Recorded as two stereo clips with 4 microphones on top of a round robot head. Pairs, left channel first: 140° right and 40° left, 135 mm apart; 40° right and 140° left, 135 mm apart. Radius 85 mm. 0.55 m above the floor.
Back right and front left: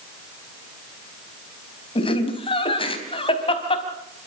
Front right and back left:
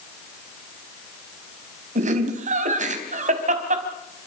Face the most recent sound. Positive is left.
turn(degrees=170)